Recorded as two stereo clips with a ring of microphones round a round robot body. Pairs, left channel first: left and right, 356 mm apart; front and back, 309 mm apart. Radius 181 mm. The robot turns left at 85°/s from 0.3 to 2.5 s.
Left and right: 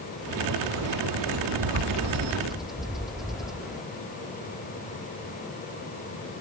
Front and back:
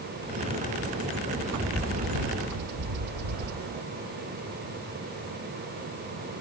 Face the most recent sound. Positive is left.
turn(degrees=180)